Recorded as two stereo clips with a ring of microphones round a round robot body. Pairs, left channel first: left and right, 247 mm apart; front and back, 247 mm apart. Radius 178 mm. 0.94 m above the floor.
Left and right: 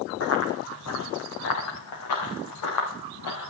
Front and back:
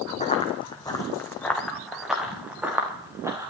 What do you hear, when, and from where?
0.2 s running footsteps: 65° left, 2.5 m; by 3.5 s 100° left, 5.5 m